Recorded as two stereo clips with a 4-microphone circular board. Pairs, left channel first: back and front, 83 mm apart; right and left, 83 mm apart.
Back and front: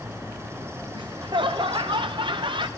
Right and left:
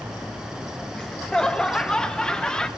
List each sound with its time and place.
0.9 s laughter: 10° right, 0.7 m